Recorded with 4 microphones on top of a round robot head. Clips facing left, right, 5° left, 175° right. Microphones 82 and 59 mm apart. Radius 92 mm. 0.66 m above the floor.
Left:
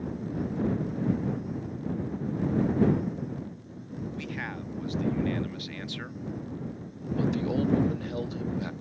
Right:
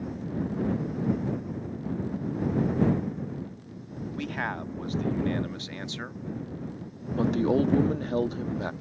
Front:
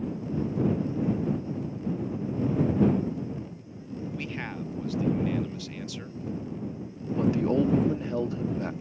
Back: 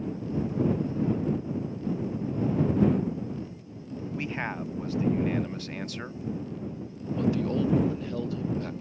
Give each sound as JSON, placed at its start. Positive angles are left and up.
{"t": 4.2, "sound": "a man speaking", "azimuth_deg": -115}
{"t": 7.2, "sound": "a man speaking", "azimuth_deg": -55}